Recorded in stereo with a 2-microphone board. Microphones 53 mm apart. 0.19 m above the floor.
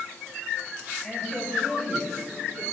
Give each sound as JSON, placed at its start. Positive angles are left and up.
{"t": 1.0, "sound": "a woman speaking", "side_deg": 5, "distance_m": 3.0}